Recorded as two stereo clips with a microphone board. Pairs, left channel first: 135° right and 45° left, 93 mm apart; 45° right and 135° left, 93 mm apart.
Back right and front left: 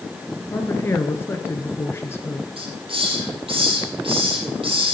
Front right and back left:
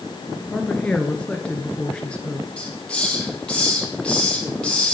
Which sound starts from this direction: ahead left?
A hiss, at 2.6 s.